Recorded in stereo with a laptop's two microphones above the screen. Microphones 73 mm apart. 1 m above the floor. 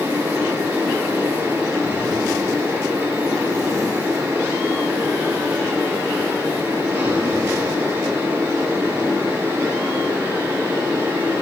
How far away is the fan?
About 4 m.